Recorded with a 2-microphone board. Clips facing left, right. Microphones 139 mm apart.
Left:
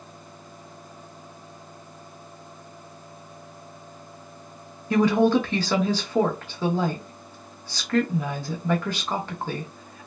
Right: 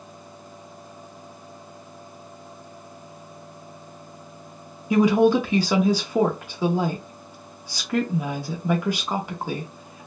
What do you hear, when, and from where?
4.9 s a woman speaking: 10° right (ahead or behind), 0.7 m